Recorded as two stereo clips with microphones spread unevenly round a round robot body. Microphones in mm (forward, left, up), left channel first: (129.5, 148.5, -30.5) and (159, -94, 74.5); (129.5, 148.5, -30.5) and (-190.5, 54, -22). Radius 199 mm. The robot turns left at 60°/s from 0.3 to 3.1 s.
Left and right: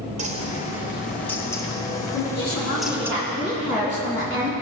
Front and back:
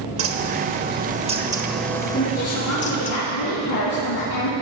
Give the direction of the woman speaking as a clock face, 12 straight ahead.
9 o'clock.